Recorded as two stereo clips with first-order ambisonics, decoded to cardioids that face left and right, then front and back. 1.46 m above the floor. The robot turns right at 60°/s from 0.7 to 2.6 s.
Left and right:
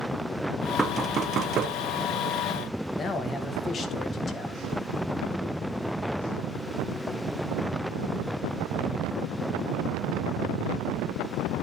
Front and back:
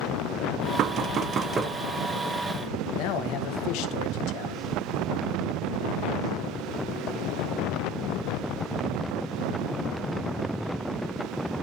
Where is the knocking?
165° right, 0.8 m; by 1.8 s 110° right, 0.8 m.